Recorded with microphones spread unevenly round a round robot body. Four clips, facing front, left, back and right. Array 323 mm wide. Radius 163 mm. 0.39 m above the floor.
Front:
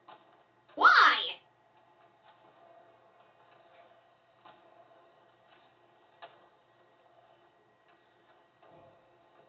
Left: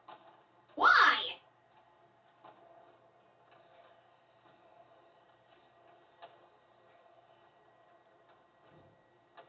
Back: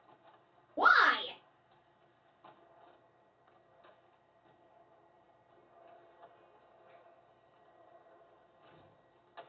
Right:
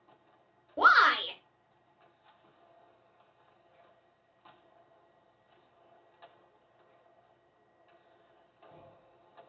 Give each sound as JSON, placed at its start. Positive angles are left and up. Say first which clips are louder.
{"t": 0.8, "sound": "a shout", "louder": "right 2 dB, front 4 dB", "azimuth_deg": -115, "distance_m": 1.0}